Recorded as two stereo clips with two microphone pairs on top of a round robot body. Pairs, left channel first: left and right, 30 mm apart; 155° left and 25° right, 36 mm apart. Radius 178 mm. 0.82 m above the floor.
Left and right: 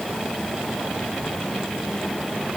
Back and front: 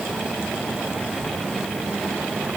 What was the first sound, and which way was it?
Only background noise.